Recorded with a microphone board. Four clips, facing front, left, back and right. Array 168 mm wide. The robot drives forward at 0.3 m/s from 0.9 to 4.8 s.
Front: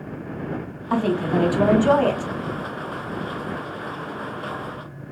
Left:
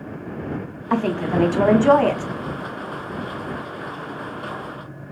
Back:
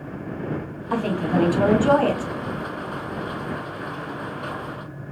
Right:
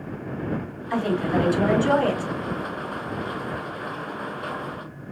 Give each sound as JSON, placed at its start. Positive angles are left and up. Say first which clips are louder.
{"t": 0.9, "sound": "a woman speaking", "louder": "left 2 dB, front 2 dB", "azimuth_deg": 70, "distance_m": 1.7}